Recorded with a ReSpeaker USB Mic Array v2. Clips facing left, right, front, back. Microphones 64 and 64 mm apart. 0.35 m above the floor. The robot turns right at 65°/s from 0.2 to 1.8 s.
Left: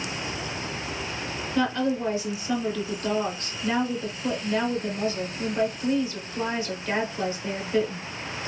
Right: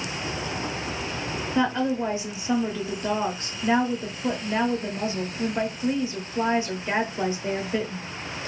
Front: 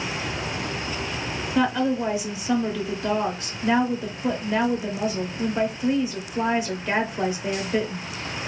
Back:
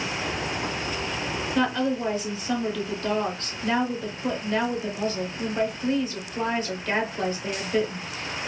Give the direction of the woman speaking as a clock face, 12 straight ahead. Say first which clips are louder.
Right 1 dB, front 3 dB; 3 o'clock.